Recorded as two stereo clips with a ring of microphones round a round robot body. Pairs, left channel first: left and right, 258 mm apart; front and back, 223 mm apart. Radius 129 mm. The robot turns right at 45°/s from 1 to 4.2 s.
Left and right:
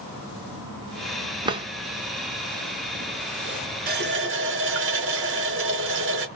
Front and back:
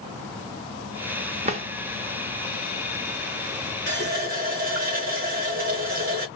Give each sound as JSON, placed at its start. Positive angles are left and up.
{"t": 1.4, "sound": "a drawer", "azimuth_deg": -150, "distance_m": 0.6}
{"t": 3.9, "sound": "a running tap", "azimuth_deg": -145, "distance_m": 0.9}